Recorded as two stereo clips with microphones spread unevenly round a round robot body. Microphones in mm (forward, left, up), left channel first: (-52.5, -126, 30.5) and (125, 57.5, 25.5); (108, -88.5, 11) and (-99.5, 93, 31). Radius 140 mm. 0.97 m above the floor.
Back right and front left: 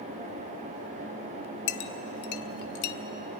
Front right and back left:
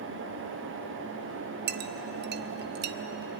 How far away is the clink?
About 0.5 m.